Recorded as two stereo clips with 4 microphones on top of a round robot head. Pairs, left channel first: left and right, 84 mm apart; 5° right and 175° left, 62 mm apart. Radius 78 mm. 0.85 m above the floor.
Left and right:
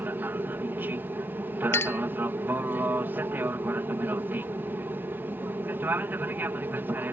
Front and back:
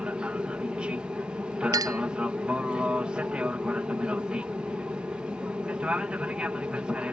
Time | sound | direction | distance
0.0 | an aircraft | 130° right | ?
1.7 | a clink | 155° left | ?